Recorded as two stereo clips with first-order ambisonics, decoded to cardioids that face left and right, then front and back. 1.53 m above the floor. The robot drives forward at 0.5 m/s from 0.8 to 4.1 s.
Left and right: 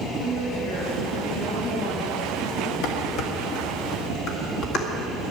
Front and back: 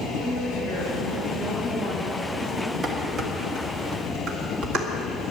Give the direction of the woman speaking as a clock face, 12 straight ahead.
10 o'clock.